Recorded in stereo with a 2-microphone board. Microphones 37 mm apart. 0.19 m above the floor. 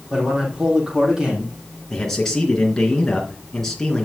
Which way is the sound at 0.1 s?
20° right (ahead or behind).